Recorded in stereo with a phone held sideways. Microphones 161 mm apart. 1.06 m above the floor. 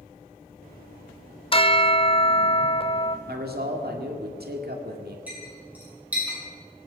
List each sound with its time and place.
1.5 s a bell: 35° left (ahead or behind), 0.8 m
3.3 s a man speaking: 80° right, 2 m
5.3 s a clink: 10° right (ahead or behind), 7 m